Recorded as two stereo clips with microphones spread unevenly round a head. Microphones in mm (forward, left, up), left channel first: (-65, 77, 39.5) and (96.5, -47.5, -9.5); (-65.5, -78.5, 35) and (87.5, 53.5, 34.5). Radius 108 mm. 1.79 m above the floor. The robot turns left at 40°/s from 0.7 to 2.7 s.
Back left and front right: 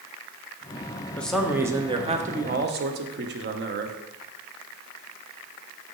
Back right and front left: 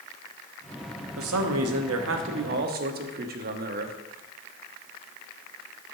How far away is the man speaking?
About 1.1 m.